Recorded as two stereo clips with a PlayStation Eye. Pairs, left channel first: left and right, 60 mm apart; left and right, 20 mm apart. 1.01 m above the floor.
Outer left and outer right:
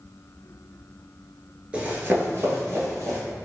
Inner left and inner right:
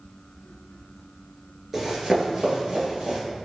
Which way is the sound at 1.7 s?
20° right (ahead or behind).